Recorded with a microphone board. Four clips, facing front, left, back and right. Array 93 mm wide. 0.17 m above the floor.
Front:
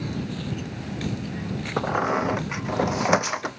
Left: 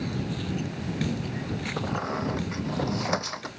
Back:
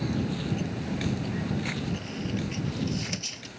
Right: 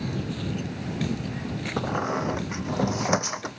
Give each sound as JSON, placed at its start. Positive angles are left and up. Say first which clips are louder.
{"t": 1.8, "sound": "a squeak", "louder": "right 4 dB, front 11 dB", "azimuth_deg": -10}